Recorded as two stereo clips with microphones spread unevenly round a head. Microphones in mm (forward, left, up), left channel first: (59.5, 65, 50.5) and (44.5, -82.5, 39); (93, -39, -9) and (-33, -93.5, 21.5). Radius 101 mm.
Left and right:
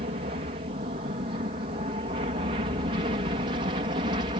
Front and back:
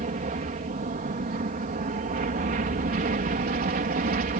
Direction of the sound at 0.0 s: 140° right.